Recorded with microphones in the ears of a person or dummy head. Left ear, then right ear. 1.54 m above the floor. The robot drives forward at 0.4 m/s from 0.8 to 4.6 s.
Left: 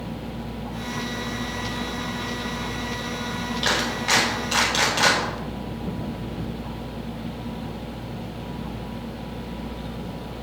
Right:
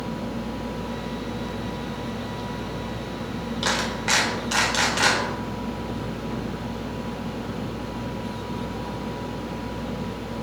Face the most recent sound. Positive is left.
turn(degrees=-70)  # may be behind; listen again after turning